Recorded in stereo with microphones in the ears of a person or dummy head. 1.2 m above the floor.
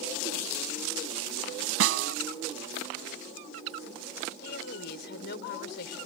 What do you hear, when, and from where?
1.8 s a snare drum: 75° right (ahead or behind)
4.4 s a woman speaking: 65° left (ahead or behind)